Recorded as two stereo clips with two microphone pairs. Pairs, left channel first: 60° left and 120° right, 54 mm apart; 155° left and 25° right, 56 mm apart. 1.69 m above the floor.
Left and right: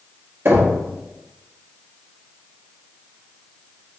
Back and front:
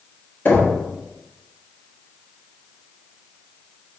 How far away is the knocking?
About 1.1 m.